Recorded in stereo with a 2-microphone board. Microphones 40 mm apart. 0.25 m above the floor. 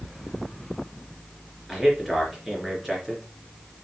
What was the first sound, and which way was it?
A man speaking, centre (ahead or behind).